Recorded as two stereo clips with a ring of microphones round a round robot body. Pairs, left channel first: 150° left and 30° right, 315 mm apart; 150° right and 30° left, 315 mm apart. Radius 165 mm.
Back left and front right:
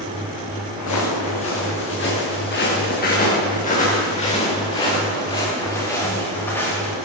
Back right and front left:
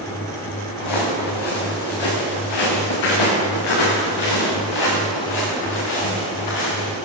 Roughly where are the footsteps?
Behind.